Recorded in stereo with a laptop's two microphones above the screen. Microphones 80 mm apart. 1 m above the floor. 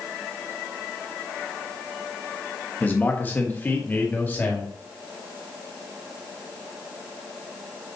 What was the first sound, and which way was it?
A man speaking, 25° left (ahead or behind).